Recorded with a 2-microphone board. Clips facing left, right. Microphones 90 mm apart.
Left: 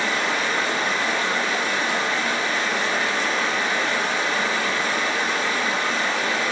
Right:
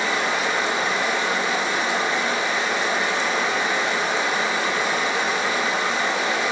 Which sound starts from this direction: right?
Running water, at 0.0 s.